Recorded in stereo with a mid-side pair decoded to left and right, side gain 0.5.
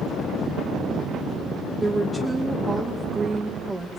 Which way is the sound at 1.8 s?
20° right.